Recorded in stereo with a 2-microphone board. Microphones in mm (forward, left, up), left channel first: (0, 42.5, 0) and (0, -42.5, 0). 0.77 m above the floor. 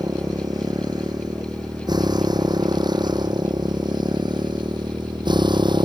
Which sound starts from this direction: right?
A motorcycle, at 0.0 s.